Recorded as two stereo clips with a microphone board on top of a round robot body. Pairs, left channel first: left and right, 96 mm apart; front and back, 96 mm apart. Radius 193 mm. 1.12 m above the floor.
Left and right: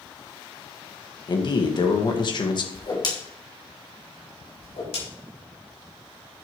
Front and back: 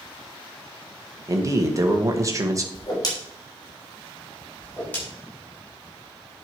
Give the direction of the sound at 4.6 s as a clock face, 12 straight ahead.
9 o'clock.